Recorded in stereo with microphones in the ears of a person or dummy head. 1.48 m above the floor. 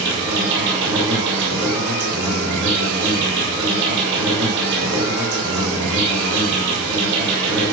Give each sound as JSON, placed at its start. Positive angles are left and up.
{"t": 0.0, "sound": "an insect", "side_deg": -65, "distance_m": 5.5}